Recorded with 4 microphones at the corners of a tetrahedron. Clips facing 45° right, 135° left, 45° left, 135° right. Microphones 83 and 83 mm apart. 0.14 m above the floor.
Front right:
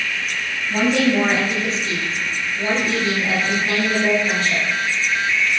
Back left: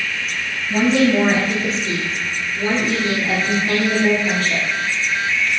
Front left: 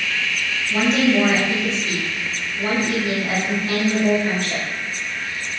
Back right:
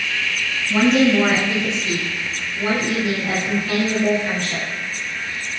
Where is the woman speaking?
175° right, 2.0 m; by 4.7 s 105° left, 2 m.